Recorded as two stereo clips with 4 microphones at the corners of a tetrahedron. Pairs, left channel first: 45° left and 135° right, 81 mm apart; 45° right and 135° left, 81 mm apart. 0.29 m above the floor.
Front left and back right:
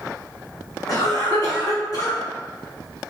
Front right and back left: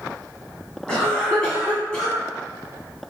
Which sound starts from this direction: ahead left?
A cough, at 0.9 s.